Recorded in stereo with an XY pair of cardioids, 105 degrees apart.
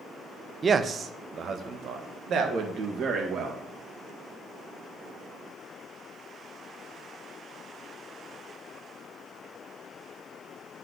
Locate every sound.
0.6 s a man speaking: 35° right, 0.7 m; by 3.6 s 70° right, 2 m